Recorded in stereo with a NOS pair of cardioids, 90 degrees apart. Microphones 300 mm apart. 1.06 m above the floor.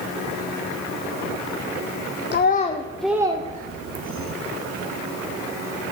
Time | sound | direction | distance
2.3 | a child speaking | 40° left | 0.7 m